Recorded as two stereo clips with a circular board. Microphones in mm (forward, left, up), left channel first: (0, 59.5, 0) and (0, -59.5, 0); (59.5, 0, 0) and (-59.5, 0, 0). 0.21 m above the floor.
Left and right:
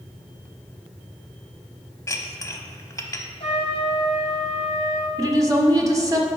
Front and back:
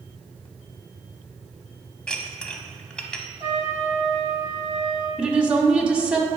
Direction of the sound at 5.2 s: 110° right.